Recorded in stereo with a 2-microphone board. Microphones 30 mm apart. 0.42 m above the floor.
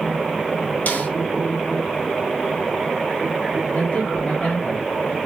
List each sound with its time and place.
0.9 s a snare drum: 65° left (ahead or behind), 2 m
3.7 s a man speaking: 50° left (ahead or behind), 2.5 m